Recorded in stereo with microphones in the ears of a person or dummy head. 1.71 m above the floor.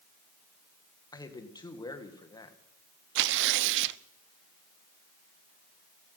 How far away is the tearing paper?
About 0.7 m.